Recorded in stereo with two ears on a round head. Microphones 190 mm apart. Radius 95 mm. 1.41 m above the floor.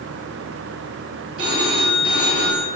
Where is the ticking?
No ticking in this recording.